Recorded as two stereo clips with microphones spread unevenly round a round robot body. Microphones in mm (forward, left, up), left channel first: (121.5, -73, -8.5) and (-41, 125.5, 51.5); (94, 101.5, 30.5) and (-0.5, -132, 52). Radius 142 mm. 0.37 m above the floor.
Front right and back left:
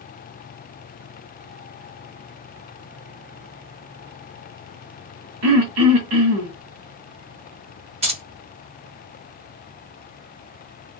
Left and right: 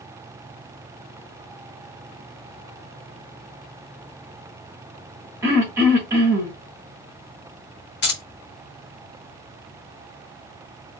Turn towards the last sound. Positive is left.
turn(degrees=55)